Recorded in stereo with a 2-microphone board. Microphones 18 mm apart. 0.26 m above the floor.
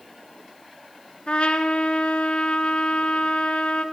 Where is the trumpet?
65° left (ahead or behind), 2 m.